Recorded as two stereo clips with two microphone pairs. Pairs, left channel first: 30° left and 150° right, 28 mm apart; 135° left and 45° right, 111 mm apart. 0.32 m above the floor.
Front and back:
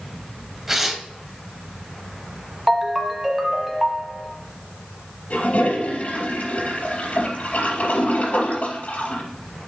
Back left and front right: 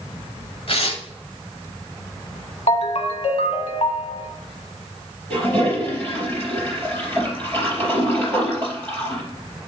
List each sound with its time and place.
0.7 s tearing paper: 130° left, 1.0 m
2.7 s a ringtone: 125° left, 0.9 m
5.3 s a toilet flushing: 60° left, 3.5 m